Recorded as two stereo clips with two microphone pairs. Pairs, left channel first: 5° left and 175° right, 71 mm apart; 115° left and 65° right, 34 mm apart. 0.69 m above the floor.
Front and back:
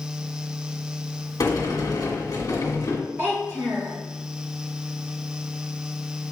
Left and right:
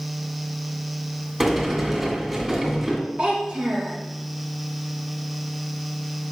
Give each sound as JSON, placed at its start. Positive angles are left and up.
{"t": 1.4, "sound": "a sliding door", "azimuth_deg": 10, "distance_m": 2.0}
{"t": 3.2, "sound": "a child speaking", "azimuth_deg": -120, "distance_m": 2.5}